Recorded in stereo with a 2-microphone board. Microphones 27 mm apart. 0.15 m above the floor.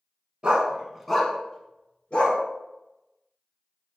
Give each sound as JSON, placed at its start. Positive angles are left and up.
{"t": 0.4, "sound": "a dog barking", "side_deg": -35, "distance_m": 0.6}